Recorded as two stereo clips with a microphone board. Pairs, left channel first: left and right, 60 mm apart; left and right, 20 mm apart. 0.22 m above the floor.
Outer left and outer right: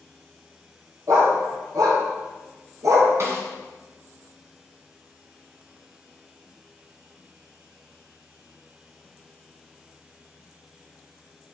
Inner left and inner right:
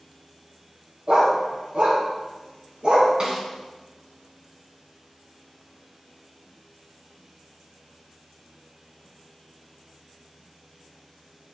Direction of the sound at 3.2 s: 50° right (ahead or behind).